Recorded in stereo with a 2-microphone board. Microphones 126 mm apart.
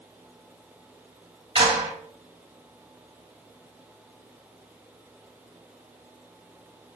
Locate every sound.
1.6 s a clap: 55° right (ahead or behind), 2.5 m